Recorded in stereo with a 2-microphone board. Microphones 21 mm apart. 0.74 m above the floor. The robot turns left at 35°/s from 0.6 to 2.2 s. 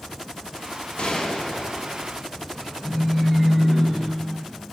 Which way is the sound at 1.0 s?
110° left.